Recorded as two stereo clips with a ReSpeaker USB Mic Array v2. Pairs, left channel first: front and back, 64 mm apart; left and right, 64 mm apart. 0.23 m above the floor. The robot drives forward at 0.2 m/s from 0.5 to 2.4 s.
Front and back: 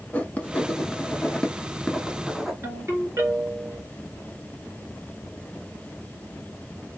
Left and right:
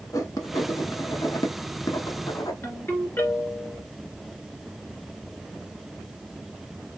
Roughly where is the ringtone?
Behind left.